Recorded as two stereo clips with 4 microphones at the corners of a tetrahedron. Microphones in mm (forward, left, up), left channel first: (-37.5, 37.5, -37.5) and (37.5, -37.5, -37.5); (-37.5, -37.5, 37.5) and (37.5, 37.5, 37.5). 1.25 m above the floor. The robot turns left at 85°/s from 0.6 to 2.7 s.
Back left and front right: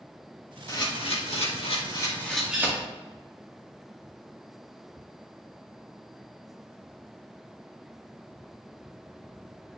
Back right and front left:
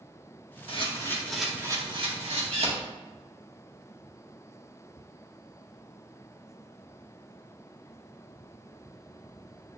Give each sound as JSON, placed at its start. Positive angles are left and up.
{"t": 0.7, "sound": "a camera shutter", "azimuth_deg": -165, "distance_m": 1.9}